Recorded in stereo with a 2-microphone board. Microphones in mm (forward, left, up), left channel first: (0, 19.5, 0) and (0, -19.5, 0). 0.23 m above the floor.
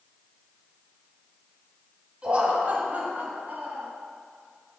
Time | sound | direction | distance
2.2 | laughter | 25° right (ahead or behind) | 1.3 m